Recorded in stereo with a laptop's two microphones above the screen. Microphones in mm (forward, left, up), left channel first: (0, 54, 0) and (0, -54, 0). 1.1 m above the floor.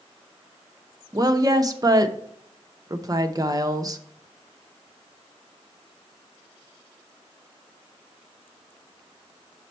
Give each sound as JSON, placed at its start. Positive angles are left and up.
{"t": 1.1, "sound": "a woman speaking", "side_deg": -35, "distance_m": 0.8}